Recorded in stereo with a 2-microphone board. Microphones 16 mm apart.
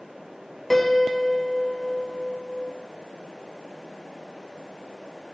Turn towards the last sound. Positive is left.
turn(degrees=15)  # may be behind; listen again after turning